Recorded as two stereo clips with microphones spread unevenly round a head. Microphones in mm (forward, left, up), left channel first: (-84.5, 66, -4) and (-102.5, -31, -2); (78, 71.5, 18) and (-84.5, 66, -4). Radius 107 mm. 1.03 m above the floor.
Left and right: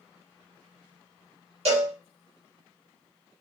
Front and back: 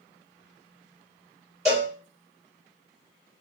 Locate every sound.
1.6 s a cowbell: 100° right, 1.8 m